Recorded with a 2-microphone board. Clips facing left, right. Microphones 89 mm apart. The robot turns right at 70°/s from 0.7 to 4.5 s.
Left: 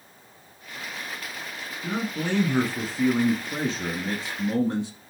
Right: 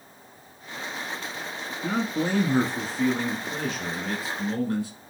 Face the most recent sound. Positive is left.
turn(degrees=25)  # may be behind; listen again after turning